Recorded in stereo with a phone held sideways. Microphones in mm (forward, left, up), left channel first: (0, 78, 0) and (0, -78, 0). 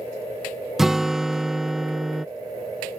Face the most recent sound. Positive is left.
turn(degrees=-5)  # may be behind; listen again after turning